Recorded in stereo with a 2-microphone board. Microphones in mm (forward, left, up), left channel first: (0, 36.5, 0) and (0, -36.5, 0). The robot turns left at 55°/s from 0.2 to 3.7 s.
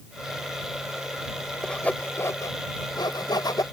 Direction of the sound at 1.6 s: 10° left (ahead or behind).